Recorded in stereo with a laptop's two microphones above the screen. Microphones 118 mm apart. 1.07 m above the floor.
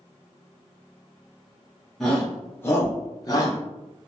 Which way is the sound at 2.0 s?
Centre (ahead or behind).